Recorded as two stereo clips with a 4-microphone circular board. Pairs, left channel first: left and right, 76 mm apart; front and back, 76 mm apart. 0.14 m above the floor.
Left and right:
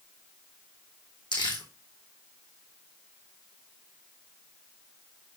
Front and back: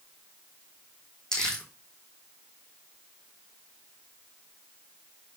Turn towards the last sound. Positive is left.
turn(degrees=85)